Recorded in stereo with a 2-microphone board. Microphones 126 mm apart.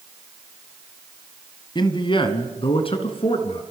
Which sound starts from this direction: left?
A man speaking, at 1.8 s.